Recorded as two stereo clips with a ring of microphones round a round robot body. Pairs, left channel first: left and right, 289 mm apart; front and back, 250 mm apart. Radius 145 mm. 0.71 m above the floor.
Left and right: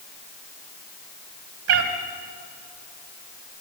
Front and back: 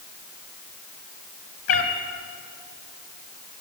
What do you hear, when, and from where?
1.7 s a cat meowing: 45° right, 2 m